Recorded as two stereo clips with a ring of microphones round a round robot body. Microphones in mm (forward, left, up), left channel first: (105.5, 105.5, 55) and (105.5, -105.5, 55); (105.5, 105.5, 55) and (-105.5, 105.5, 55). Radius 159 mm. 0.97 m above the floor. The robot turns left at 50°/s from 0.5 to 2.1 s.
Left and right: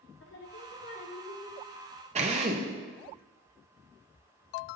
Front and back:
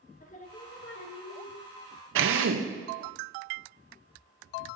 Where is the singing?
55° left, 1.3 m; by 1.6 s straight ahead, 1.3 m.